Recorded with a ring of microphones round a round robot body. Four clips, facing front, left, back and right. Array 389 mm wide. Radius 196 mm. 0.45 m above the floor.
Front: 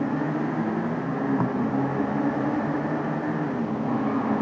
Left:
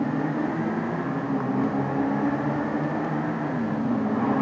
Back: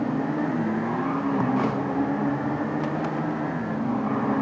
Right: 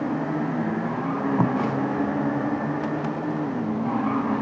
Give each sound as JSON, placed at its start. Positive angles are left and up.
{"t": 1.4, "sound": "tape being pulled", "azimuth_deg": -85}